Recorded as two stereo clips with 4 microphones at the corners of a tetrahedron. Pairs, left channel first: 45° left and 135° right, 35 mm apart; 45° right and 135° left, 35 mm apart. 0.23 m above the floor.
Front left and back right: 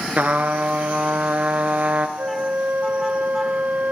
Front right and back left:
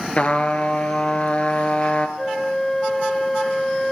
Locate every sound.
0.2 s a trumpet: 95° right, 1.6 m
2.2 s a flute: 120° right, 0.7 m